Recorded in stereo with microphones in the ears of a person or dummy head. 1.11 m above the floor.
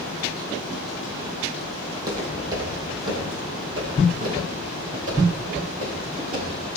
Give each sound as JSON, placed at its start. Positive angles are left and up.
{"t": 1.9, "sound": "footsteps", "side_deg": -15, "distance_m": 2.5}